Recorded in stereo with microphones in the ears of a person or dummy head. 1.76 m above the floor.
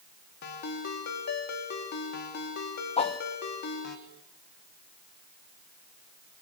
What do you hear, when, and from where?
0.4 s a ringtone: 65° left (ahead or behind), 2.5 m
3.0 s a whoosh: 30° left (ahead or behind), 1.7 m